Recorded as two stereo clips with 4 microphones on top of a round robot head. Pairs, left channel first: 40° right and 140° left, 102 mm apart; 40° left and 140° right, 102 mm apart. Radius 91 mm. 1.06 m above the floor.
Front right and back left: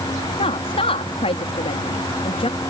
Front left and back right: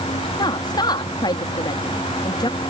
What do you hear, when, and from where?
0.4 s a woman speaking: 10° right